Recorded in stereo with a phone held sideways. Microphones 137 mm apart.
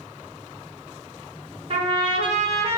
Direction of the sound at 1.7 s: 40° right (ahead or behind).